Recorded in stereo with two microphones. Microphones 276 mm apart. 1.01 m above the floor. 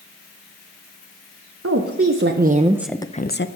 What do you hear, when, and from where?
1.6 s a woman speaking: 60° right (ahead or behind), 1.1 m; by 3.5 s 45° left (ahead or behind), 0.6 m